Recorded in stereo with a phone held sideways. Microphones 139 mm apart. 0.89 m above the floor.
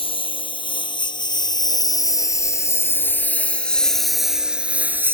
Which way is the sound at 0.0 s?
40° left (ahead or behind).